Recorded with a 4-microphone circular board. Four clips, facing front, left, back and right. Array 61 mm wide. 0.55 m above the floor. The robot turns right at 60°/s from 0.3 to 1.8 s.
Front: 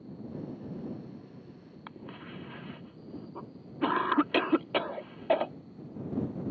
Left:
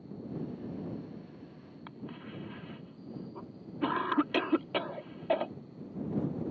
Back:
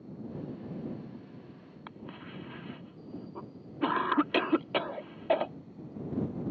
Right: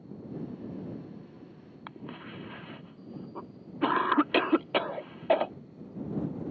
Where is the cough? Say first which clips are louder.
Right 2 dB, front 1 dB; 85° right.